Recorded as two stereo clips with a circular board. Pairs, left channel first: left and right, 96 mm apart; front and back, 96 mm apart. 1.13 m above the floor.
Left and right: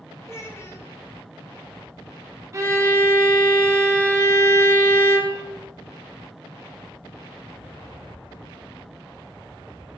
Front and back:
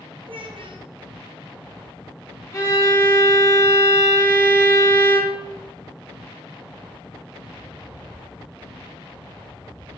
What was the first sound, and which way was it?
A child speaking, 155° left.